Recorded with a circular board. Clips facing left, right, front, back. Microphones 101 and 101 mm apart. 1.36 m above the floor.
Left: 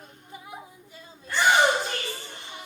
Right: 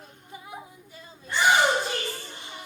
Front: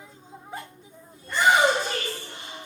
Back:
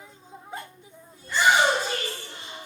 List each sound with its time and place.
1.2 s a shout: 25° right, 5 m